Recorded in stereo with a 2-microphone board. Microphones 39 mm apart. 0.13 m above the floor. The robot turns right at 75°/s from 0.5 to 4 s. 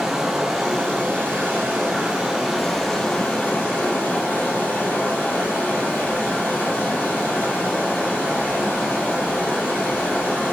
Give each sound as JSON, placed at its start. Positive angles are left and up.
{"t": 0.0, "sound": "running water", "azimuth_deg": -165, "distance_m": 1.5}